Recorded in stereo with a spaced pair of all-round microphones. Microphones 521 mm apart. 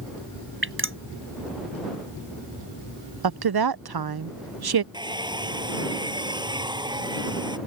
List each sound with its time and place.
0.6 s dripping: 25° right (ahead or behind)
3.2 s a woman speaking: 50° right (ahead or behind)
4.9 s a hair dryer: 10° right (ahead or behind)